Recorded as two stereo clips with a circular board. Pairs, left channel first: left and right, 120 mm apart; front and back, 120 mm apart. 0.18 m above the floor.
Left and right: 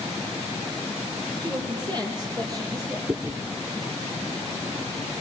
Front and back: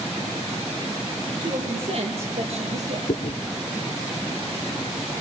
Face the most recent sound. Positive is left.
turn(degrees=-25)